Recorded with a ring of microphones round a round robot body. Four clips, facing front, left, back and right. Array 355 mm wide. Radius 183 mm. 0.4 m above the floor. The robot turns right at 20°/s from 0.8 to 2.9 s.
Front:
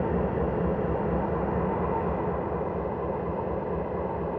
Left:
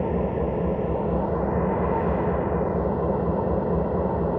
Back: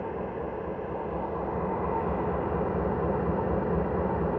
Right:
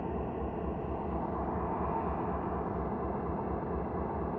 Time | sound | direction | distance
0.0 | an engine running | 65° left | 0.8 m